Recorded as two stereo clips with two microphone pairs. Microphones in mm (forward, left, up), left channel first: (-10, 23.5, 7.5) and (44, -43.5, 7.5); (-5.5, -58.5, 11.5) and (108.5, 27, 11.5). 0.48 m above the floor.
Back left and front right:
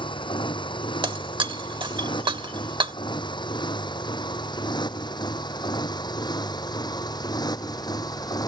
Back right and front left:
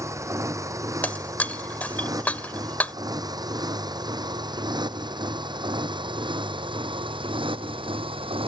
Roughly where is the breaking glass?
Ahead right.